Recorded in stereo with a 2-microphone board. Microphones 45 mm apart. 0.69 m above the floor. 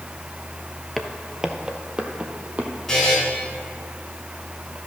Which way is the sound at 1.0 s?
Centre (ahead or behind).